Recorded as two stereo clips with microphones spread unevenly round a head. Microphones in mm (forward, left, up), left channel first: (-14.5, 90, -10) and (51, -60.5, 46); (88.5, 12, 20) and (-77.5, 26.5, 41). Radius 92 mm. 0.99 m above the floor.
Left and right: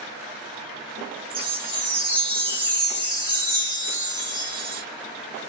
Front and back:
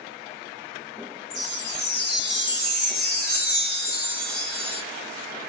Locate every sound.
1.3 s a chime: 10° right, 1.8 m